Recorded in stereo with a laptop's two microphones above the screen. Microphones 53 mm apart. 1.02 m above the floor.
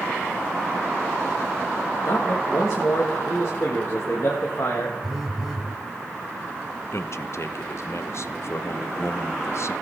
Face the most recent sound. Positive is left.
turn(degrees=55)  # may be behind; listen again after turning